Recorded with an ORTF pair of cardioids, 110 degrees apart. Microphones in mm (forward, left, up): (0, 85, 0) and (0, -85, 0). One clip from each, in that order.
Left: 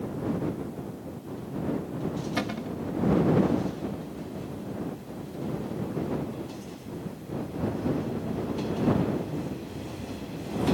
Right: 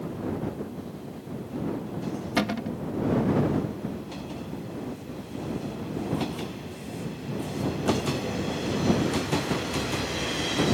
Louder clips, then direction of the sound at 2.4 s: Right 6 dB; 30° right.